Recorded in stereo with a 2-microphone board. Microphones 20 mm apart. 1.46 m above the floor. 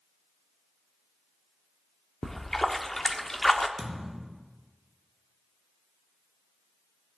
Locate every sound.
2.2 s a splash: 15° left (ahead or behind), 0.6 m
3.8 s a thud: 40° right (ahead or behind), 2 m